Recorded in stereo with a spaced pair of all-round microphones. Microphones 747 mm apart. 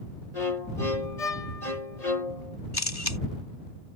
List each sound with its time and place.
0.3 s a violin: 55° left (ahead or behind)
2.7 s a camera shutter: 30° left (ahead or behind)